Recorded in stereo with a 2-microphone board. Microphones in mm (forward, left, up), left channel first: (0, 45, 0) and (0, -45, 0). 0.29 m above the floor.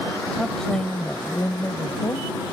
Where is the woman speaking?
Centre (ahead or behind); by 2.4 s 45° left (ahead or behind).